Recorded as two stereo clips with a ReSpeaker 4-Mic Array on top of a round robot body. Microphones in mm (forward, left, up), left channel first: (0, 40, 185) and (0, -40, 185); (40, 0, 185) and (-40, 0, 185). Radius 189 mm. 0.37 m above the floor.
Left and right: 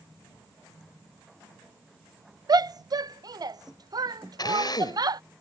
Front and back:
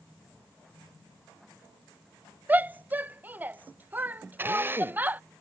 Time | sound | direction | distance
2.5 | a shout | 115° right | ?
4.4 | a drill | 115° left | ?